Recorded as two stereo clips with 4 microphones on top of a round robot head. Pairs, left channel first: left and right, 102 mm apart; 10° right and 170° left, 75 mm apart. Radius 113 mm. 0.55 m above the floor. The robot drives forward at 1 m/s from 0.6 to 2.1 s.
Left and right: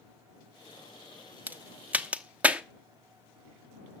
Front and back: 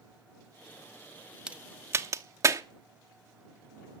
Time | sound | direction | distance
1.5 | a crack | 130° right | 0.9 m